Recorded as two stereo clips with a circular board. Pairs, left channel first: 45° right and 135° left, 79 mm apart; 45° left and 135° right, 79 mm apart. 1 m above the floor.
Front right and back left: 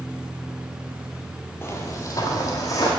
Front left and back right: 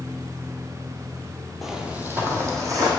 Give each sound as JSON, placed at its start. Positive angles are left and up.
{"t": 1.6, "sound": "footsteps", "azimuth_deg": -45, "distance_m": 1.1}